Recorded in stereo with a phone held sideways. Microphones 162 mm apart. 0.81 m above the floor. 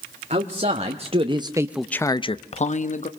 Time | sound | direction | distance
0.3 | a man speaking | 45° right (ahead or behind) | 1.6 m